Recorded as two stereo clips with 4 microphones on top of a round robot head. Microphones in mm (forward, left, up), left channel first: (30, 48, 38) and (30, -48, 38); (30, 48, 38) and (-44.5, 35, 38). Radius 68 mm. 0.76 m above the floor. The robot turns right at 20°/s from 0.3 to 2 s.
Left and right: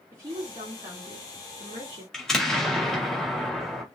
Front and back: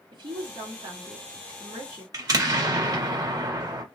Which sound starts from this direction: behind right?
A woman speaking, at 0.1 s.